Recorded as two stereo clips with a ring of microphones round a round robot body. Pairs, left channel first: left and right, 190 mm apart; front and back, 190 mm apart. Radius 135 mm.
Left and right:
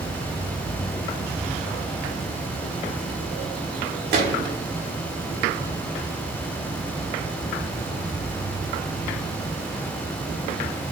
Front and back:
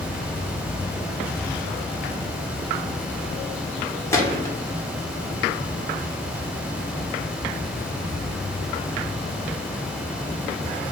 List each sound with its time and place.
4.1 s a gunshot: 75° right, 1.4 m